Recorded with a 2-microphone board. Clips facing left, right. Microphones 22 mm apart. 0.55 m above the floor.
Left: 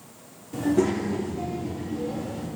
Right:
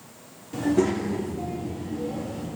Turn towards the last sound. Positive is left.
turn(degrees=50)  # may be behind; listen again after turning